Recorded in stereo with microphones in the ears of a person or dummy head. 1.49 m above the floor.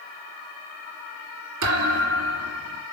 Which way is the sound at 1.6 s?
60° right (ahead or behind).